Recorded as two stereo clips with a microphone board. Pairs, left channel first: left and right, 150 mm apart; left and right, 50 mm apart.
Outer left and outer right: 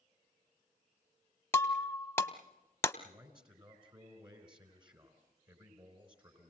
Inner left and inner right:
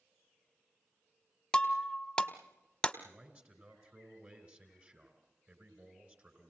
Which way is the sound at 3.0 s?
30° right (ahead or behind).